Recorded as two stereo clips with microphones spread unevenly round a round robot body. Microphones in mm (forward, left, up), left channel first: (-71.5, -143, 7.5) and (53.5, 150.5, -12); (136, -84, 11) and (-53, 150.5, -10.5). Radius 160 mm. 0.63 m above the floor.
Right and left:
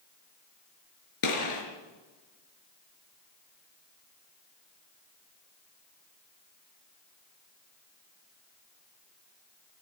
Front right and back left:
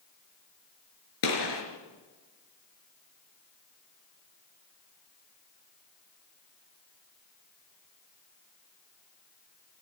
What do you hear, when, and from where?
1.2 s a gunshot: 75° right, 5 m